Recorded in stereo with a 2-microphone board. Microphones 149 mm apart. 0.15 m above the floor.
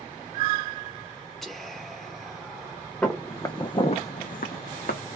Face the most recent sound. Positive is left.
turn(degrees=75)  # may be behind; listen again after turning